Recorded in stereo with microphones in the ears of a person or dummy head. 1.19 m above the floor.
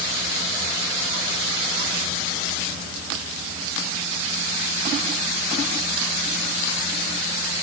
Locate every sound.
Only background noise.